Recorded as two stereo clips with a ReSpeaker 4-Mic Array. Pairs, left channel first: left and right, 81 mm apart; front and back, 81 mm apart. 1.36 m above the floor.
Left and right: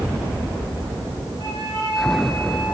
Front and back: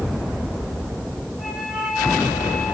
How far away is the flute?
About 6 m.